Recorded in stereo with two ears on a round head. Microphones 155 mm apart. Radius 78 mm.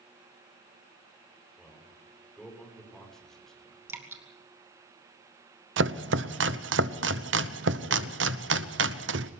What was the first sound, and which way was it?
A man speaking, 5° left (ahead or behind).